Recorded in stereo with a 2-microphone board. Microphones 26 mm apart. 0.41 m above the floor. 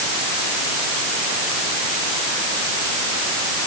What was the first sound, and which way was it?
Only background noise.